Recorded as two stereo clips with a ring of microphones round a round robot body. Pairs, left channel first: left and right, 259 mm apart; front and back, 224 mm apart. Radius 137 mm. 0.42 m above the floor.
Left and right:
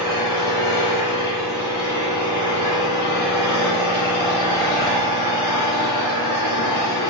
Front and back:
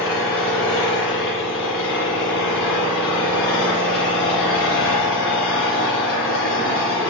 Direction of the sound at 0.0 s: 35° left.